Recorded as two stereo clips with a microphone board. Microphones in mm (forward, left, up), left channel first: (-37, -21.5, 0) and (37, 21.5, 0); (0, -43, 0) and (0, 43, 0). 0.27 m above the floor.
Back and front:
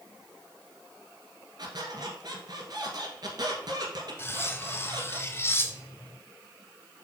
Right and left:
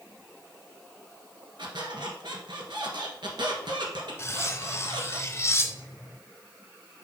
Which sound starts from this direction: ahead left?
A squeak, at 1.6 s.